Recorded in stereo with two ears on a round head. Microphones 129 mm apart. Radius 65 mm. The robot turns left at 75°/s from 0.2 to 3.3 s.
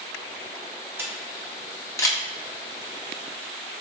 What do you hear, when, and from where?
1.0 s a camera shutter: 15° right (ahead or behind), 0.8 m; by 2.2 s 25° left (ahead or behind), 0.8 m